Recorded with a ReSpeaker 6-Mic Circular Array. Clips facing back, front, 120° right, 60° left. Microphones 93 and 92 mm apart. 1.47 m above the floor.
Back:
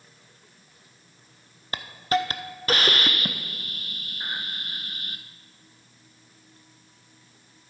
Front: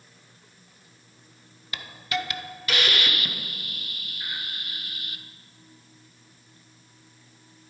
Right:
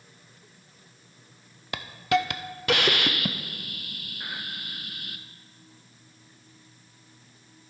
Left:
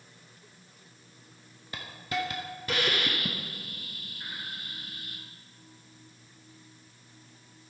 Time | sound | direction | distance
1.7 | a hiss | 125° right | 0.5 m